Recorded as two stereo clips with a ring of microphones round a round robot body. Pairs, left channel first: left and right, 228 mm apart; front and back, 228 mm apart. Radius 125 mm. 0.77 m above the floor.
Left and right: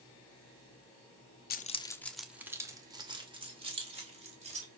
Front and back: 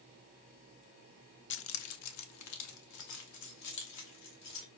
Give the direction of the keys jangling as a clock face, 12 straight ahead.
11 o'clock.